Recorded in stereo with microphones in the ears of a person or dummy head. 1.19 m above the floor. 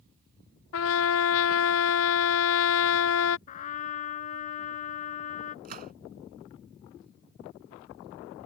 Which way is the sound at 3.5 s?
45° left (ahead or behind).